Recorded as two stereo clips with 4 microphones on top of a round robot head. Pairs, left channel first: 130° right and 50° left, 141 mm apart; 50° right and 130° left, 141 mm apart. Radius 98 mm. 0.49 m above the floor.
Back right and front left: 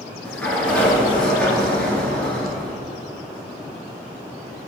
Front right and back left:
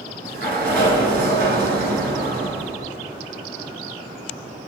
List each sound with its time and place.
0.2 s a sliding door: 150° left, 1.3 m